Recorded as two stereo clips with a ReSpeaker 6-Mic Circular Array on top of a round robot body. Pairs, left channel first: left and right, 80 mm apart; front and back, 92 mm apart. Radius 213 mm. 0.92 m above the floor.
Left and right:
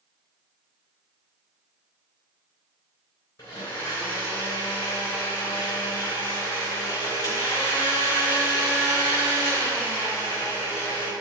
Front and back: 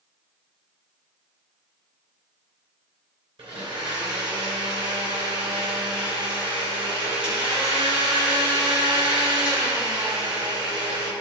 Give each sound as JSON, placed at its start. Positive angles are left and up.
{"t": 3.4, "sound": "a blender", "azimuth_deg": 150, "distance_m": 3.0}